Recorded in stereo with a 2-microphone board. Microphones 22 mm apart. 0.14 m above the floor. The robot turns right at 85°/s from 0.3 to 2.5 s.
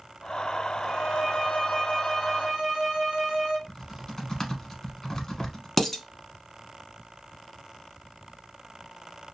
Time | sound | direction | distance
0.9 | a violin | 55° left | 1.0 m
3.7 | typing on a keyboard | 20° left (ahead or behind) | 0.9 m
5.8 | dishes clattering | 10° left (ahead or behind) | 0.8 m